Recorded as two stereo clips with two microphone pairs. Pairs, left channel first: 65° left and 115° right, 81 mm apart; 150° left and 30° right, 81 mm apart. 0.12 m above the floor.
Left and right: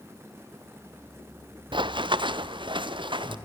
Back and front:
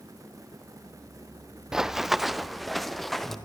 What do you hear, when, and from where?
1.7 s running footsteps: 110° right, 0.7 m; by 3.4 s 120° right, 1.9 m